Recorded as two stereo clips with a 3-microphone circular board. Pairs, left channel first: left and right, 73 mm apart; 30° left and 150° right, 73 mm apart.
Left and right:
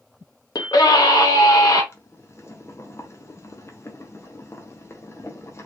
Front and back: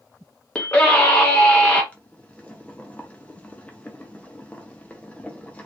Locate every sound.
0.6 s a scream: 100° left, 0.7 m
1.9 s boiling: 90° left, 0.7 m